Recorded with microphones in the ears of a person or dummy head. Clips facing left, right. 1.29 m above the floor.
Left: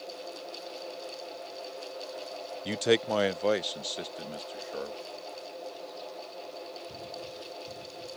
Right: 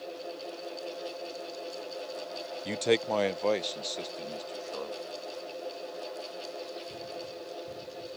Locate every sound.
2.6 s a man speaking: 5° left (ahead or behind); by 5.0 s 10° left (ahead or behind)